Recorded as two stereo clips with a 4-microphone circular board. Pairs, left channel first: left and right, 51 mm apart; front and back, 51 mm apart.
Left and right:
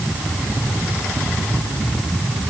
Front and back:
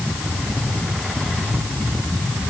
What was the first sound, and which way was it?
Only background noise.